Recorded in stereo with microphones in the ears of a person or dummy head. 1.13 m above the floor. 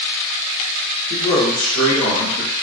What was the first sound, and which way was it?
A man speaking, 5° left (ahead or behind).